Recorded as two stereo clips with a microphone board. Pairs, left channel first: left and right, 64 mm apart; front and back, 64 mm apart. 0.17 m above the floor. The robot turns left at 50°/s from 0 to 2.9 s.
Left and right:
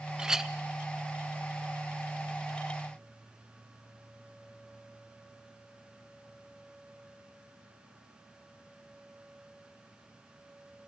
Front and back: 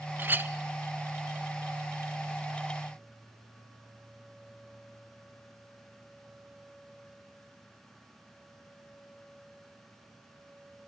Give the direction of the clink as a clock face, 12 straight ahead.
5 o'clock.